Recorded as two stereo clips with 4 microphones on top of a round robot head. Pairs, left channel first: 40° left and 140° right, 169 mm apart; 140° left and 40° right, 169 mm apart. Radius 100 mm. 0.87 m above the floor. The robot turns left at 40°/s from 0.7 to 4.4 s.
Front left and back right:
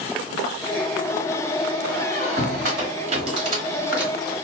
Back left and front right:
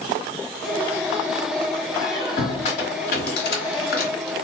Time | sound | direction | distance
1.9 | a squeak | 140° right | 1.0 m